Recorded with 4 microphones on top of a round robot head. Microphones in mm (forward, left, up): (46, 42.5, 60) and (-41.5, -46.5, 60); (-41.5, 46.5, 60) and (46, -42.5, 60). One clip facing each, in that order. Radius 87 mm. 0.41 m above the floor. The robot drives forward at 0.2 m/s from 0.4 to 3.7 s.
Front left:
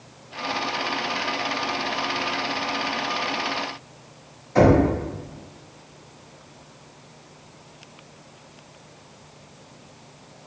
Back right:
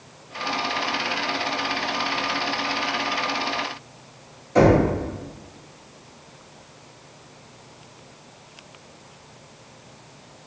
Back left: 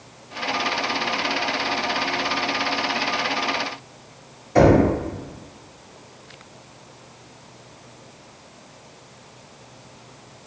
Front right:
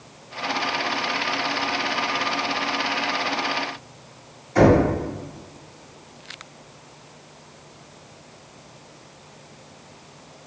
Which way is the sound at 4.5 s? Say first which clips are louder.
Even, back left 1 dB; 160° left.